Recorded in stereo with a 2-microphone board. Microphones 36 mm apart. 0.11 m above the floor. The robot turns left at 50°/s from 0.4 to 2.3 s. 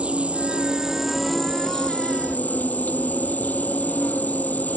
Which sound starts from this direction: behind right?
An insect, at 0.0 s.